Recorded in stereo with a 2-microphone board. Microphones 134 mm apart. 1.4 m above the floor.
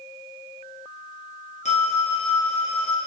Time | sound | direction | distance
1.6 | a phone ringing | 55° left (ahead or behind) | 0.9 m